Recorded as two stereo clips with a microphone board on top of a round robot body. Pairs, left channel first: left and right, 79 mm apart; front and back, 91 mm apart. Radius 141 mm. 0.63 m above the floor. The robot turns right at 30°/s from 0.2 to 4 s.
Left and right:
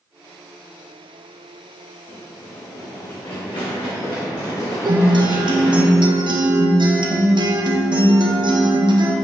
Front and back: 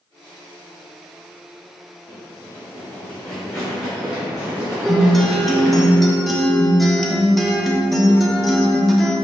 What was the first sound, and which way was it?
Running footsteps, 55° left.